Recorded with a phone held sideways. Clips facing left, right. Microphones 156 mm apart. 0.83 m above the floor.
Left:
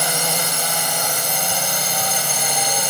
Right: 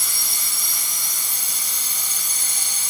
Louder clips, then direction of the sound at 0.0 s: Left 17 dB; 70° left (ahead or behind).